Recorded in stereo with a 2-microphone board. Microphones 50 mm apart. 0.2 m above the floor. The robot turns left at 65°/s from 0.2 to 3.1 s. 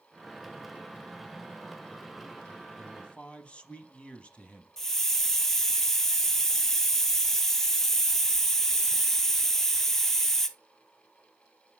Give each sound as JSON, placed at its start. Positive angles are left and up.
{"t": 2.8, "sound": "a man speaking", "side_deg": 15, "distance_m": 1.1}
{"t": 4.8, "sound": "a hiss", "side_deg": 5, "distance_m": 0.7}